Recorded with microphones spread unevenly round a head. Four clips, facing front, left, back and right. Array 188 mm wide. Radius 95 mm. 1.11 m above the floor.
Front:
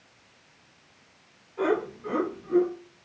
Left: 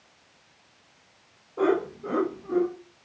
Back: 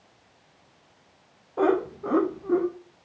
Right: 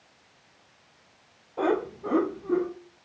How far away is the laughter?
About 4 m.